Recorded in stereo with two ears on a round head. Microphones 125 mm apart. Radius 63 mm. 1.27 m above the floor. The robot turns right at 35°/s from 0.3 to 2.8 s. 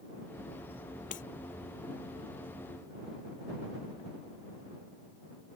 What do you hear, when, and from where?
1.1 s breaking glass: 70° left (ahead or behind); by 1.2 s 65° left (ahead or behind)